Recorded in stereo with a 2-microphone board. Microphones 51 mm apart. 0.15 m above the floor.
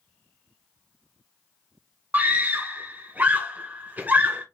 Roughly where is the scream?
Right.